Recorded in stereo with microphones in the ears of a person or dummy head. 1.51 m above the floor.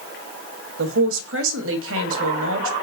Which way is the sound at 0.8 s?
70° right (ahead or behind).